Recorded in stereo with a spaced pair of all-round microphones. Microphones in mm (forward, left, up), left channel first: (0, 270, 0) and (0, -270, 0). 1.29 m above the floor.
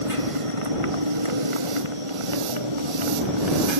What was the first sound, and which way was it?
A motorcycle, 75° right (ahead or behind).